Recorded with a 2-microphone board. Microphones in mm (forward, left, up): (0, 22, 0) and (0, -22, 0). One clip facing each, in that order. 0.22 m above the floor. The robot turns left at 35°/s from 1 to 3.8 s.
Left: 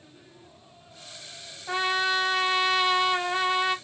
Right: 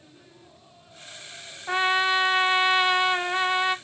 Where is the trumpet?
25° right (ahead or behind), 0.5 m; by 3.8 s 10° right (ahead or behind), 0.5 m.